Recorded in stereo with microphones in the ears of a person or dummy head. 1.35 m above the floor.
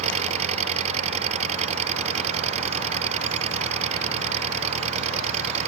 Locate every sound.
0.0 s an engine running: 40° right (ahead or behind)